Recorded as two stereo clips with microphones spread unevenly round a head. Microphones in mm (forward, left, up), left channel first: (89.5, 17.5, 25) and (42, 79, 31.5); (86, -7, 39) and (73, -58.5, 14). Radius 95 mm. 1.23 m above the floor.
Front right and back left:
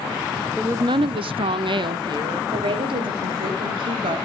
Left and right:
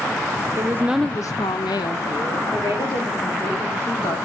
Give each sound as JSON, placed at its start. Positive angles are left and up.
{"t": 0.6, "sound": "a woman speaking", "azimuth_deg": -150, "distance_m": 0.6}
{"t": 2.5, "sound": "a woman speaking", "azimuth_deg": 130, "distance_m": 4.0}